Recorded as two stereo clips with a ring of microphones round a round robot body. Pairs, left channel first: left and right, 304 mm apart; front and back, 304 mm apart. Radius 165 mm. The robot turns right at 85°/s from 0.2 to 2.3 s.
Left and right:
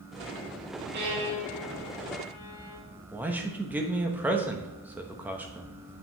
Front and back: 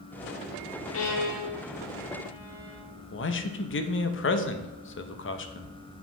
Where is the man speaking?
10° right, 0.9 m.